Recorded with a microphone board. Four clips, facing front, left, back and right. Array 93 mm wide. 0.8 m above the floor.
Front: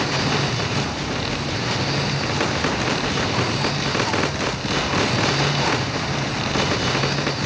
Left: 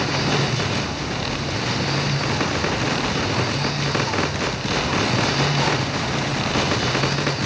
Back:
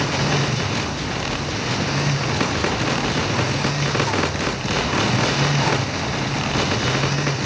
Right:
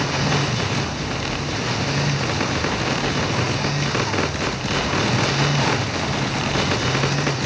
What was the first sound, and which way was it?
Only background noise.